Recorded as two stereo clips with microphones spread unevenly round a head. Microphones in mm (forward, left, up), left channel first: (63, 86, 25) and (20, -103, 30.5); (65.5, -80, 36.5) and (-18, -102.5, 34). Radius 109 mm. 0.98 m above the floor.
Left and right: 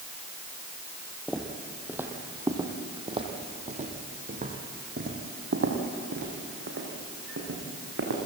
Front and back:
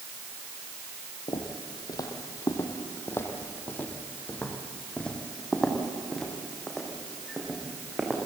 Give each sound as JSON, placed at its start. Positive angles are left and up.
{"t": 1.3, "sound": "footsteps", "azimuth_deg": -15, "distance_m": 2.0}